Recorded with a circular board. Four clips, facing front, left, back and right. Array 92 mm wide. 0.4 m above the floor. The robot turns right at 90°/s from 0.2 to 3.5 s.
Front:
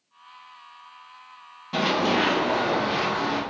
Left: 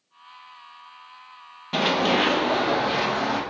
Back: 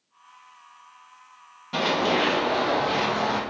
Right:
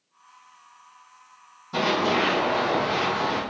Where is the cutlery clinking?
I don't hear cutlery clinking.